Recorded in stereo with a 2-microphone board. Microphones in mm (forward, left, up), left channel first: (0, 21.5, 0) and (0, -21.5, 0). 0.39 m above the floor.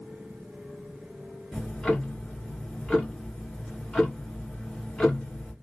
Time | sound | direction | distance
1.5 | ticking | 20° left (ahead or behind) | 1.8 m